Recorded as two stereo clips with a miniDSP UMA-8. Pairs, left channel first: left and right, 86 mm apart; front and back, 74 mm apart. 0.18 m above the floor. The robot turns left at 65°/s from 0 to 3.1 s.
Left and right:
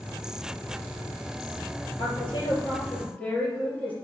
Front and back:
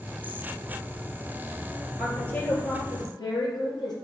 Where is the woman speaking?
85° left, 3.5 m; by 4.0 s 15° left, 3.5 m.